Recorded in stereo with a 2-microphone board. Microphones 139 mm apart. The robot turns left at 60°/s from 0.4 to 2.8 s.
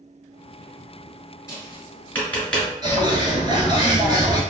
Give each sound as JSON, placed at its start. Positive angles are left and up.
{"t": 1.5, "sound": "tapping", "side_deg": 20, "distance_m": 1.6}
{"t": 2.8, "sound": "a bird", "side_deg": -30, "distance_m": 1.0}